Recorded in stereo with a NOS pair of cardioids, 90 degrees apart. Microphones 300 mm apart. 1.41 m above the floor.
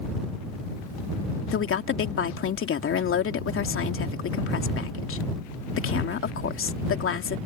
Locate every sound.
1.5 s a woman speaking: 50° left